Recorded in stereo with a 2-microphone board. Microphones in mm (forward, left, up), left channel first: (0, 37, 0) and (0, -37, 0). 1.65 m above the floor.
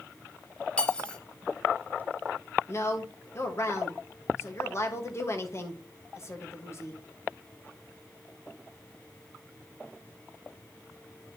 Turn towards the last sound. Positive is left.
turn(degrees=40)  # may be behind; listen again after turning